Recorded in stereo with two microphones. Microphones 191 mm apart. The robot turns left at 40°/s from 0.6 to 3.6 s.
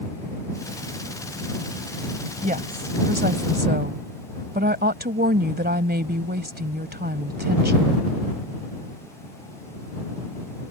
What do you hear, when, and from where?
2.4 s a woman speaking: 50° right; by 8.0 s 100° right